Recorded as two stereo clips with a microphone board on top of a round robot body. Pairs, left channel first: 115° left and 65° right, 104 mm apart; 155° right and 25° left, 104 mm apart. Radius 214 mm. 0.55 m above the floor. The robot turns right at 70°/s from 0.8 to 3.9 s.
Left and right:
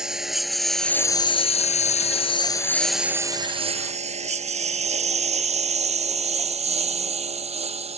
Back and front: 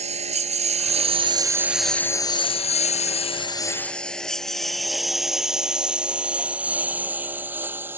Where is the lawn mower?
15° left; by 8.0 s 50° right.